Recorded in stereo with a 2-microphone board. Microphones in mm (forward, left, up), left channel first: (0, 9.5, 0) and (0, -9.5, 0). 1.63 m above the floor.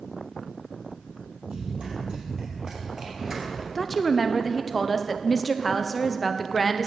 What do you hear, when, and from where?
1.4 s running footsteps: 50° right (ahead or behind), 3.5 m; by 3.6 s 20° right (ahead or behind), 1.9 m
3.8 s a woman speaking: 5° left (ahead or behind), 0.6 m